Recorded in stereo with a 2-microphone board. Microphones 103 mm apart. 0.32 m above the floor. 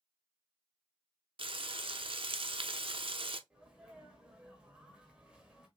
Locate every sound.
1.4 s frying: 65° right (ahead or behind), 0.6 m
3.5 s a sneeze: 10° right (ahead or behind), 1.1 m